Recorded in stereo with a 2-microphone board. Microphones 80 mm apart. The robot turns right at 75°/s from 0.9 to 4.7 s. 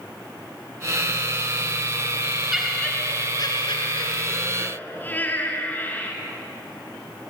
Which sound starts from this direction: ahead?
Laughter, at 2.5 s.